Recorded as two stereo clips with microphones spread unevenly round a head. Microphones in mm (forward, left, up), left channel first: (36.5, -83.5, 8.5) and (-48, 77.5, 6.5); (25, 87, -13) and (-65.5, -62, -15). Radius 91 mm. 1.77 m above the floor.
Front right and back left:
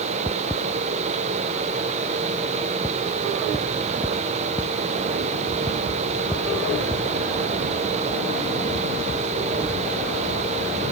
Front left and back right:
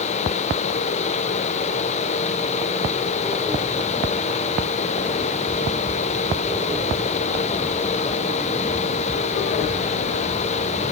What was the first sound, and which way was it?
Only background noise.